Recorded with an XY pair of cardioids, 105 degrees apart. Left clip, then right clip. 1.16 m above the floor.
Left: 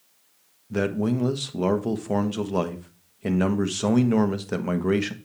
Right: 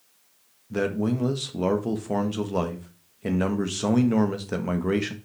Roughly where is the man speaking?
Ahead.